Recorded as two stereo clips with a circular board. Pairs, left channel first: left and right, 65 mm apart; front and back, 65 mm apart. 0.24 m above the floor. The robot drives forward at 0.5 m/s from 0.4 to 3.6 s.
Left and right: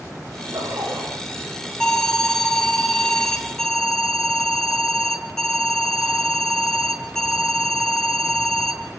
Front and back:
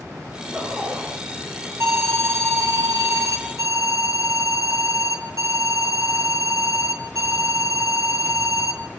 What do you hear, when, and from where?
0.3 s a zipper: 110° right, 8 m
1.8 s an alarm: 165° left, 2.5 m; by 8.8 s 170° left, 3 m